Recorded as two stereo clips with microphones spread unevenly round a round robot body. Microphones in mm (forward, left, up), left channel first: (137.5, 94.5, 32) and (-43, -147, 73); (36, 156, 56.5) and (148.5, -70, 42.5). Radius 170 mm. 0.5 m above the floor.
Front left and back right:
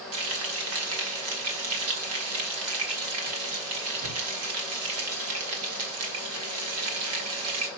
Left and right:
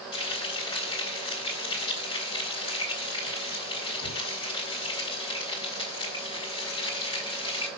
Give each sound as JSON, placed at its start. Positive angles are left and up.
{"t": 0.1, "sound": "frying", "azimuth_deg": -170, "distance_m": 2.5}